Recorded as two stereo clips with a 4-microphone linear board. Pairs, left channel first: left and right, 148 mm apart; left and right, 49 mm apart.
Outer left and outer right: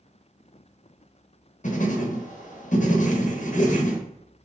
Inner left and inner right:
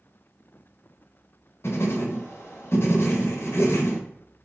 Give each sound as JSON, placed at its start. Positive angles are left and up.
{"t": 1.6, "sound": "writing", "side_deg": 55, "distance_m": 0.7}